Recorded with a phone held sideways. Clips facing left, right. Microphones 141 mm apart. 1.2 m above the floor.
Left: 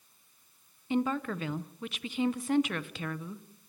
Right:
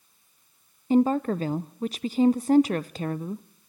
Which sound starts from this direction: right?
A woman speaking, at 0.9 s.